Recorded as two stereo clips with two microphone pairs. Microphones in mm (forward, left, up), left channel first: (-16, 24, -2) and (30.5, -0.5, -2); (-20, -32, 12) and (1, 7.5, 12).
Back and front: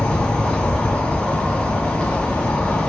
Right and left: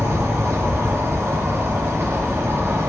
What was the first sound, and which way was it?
An insect, 80° left.